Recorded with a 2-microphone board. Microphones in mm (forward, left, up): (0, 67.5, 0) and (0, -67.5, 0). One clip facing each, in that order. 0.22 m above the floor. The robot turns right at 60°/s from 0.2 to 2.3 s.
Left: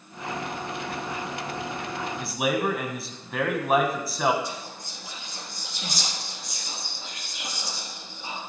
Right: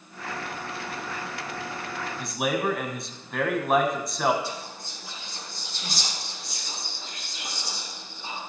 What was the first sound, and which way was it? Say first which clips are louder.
A man speaking: left 1 dB; centre (ahead or behind).